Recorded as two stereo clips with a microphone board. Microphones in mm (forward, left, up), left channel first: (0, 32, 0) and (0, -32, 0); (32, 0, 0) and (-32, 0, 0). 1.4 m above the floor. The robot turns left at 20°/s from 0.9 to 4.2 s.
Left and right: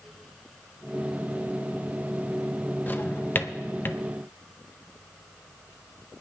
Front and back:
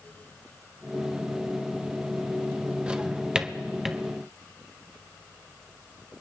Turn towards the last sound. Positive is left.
turn(degrees=95)